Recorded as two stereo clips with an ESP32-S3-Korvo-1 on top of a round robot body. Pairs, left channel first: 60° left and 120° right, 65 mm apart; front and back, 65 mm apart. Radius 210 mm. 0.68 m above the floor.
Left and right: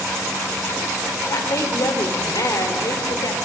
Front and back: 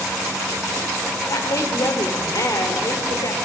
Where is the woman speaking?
30° left, 3 m.